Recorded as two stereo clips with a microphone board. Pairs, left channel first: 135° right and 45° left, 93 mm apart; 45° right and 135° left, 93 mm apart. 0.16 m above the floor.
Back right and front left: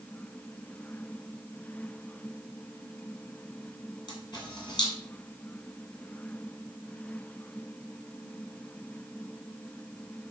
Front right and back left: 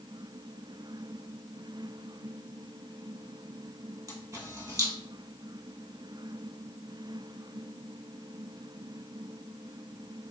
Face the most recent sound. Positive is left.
turn(degrees=-175)